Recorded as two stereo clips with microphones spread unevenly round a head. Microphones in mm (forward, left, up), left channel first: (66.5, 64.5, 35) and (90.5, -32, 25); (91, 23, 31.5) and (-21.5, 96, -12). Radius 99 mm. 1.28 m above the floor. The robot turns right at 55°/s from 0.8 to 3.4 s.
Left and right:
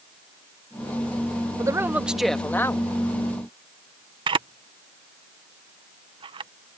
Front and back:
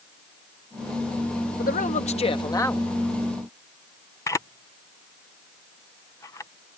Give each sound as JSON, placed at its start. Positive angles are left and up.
{"t": 1.6, "sound": "a man speaking", "azimuth_deg": -20}
{"t": 4.3, "sound": "a camera shutter", "azimuth_deg": -115}